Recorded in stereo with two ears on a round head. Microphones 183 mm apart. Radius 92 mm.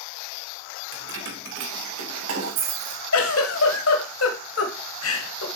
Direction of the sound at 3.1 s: 75° left (ahead or behind).